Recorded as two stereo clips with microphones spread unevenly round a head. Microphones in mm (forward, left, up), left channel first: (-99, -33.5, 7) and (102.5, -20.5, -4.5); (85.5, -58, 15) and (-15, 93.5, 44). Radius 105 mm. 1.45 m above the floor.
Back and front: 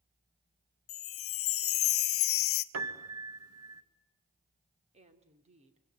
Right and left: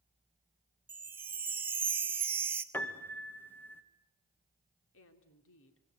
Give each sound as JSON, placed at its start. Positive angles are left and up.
{"t": 0.9, "sound": "a chime", "azimuth_deg": -155, "distance_m": 1.0}
{"t": 2.7, "sound": "a piano", "azimuth_deg": 20, "distance_m": 2.0}
{"t": 4.9, "sound": "a woman speaking", "azimuth_deg": -55, "distance_m": 3.5}